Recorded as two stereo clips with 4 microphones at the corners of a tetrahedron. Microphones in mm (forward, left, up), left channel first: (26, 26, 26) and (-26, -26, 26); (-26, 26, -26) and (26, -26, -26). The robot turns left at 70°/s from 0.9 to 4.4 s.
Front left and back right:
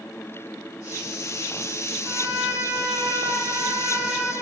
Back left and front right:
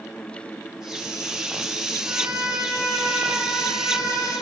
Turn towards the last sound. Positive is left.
turn(degrees=120)